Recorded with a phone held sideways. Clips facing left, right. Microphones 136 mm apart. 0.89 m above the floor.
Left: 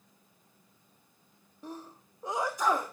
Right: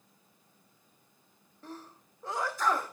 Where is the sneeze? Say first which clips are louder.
Left 3 dB; 15° left (ahead or behind), 0.9 m.